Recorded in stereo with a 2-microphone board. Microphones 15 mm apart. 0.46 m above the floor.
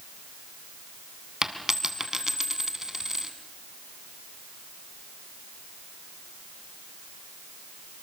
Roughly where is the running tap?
I don't hear a running tap.